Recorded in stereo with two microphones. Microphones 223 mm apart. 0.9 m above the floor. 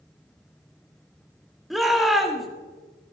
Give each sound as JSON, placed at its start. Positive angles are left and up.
{"t": 1.7, "sound": "a shout", "side_deg": 0, "distance_m": 2.5}